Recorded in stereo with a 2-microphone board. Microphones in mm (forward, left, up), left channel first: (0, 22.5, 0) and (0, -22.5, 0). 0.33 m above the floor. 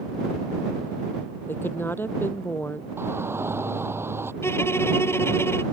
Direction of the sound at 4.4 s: 65° left (ahead or behind).